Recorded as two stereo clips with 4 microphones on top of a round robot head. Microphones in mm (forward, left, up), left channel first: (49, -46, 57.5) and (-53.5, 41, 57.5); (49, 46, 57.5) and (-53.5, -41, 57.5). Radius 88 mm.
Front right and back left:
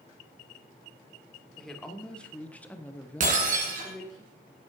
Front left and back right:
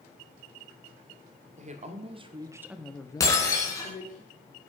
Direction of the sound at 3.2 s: 110° left.